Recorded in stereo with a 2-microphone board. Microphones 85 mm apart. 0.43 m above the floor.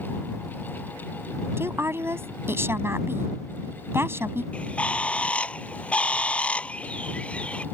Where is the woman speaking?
30° right (ahead or behind).